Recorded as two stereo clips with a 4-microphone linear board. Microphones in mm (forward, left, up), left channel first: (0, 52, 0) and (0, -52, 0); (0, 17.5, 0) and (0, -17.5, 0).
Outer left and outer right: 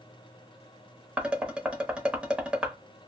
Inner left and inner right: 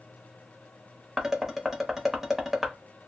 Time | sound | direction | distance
1.2 | dishes clattering | 10° right (ahead or behind) | 0.8 m